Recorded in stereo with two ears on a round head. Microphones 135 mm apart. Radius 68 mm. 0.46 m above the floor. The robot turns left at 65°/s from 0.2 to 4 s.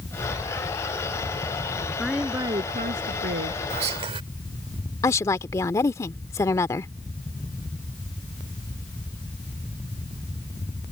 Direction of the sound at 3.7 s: 50° right (ahead or behind).